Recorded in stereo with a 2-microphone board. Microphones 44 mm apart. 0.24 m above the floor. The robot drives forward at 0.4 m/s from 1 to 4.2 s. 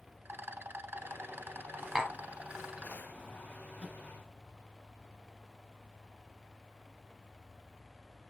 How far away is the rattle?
About 0.5 m.